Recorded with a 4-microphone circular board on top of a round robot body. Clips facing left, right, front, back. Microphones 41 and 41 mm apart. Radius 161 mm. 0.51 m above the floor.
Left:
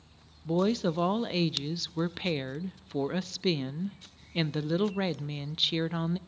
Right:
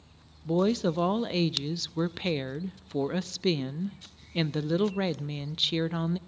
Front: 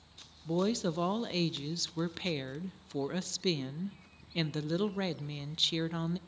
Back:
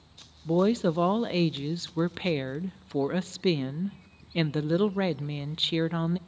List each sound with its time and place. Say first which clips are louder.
0.5 s a woman speaking: right 2 dB, back 7 dB; 175° left, 0.6 m